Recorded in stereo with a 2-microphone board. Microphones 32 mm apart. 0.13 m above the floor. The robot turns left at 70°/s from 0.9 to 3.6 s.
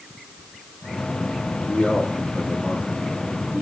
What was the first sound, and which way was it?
A man speaking, 55° left.